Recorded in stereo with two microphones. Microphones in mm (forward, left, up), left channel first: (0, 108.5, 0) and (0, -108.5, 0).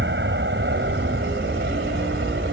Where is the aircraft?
65° right (ahead or behind).